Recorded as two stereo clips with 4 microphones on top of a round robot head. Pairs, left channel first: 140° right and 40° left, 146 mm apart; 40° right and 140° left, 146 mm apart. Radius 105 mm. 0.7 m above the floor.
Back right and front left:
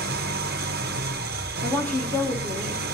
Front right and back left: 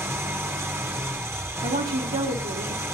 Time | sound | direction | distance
0.0 | an engine running | 65° left | 1.2 m
1.6 | a woman speaking | 140° left | 3 m